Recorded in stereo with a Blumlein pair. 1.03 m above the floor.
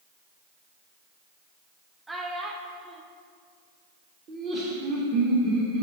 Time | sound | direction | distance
2.1 | a child speaking | 10° right | 0.9 m
4.3 | laughter | 35° right | 1.4 m